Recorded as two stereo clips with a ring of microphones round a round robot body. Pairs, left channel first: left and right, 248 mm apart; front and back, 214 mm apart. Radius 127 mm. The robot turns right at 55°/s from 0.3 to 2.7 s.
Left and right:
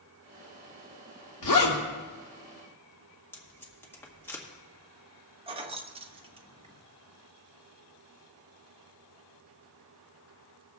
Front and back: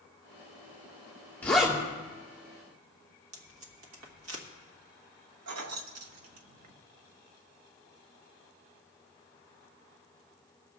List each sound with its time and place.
1.4 s a zipper: 80° left, 2.5 m; by 1.8 s 105° left, 2.5 m
3.3 s tape being pulled: 170° left, 1.7 m
5.5 s keys jangling: 160° right, 0.8 m